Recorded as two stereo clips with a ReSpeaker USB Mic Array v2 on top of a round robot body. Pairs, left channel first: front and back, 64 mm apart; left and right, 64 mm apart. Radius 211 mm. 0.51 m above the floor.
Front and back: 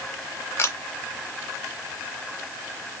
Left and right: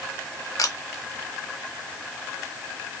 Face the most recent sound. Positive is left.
turn(degrees=55)